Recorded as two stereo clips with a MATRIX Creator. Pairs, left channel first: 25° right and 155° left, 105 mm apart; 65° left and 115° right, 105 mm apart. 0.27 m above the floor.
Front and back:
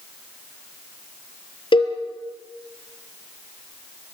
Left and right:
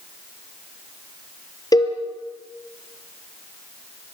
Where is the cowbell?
15° left, 3 m.